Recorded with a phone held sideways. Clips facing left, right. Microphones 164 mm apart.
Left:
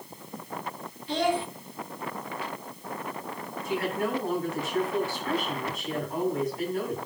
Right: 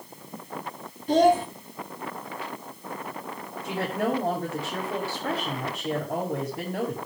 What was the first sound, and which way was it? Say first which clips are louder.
A child speaking: right 7 dB; 45° right (ahead or behind).